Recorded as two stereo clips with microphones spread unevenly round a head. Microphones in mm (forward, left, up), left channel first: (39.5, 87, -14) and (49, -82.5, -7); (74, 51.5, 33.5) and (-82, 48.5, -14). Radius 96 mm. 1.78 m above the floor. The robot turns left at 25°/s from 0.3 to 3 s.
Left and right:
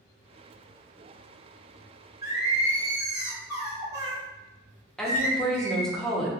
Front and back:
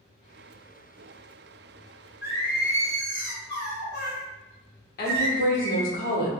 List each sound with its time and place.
2.2 s singing: 60° right, 1.6 m; by 5.9 s 80° right, 1.6 m
5.0 s a woman speaking: 5° left, 0.9 m